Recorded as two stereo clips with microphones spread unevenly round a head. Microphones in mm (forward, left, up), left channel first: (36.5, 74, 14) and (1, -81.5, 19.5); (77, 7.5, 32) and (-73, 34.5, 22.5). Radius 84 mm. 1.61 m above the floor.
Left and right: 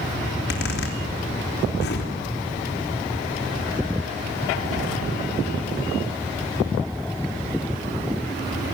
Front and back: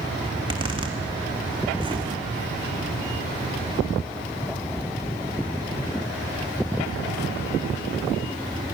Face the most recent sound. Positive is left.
turn(degrees=110)